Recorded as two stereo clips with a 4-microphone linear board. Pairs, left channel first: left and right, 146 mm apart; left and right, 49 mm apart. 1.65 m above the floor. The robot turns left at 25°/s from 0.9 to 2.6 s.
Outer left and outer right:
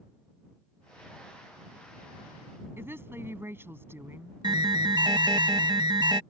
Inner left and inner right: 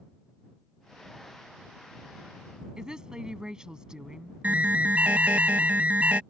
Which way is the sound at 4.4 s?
30° right (ahead or behind).